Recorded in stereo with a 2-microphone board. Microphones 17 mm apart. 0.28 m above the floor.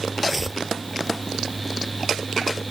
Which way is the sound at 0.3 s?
15° right (ahead or behind).